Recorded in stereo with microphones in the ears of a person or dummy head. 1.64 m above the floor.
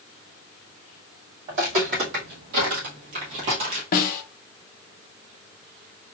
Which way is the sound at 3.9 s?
50° left (ahead or behind).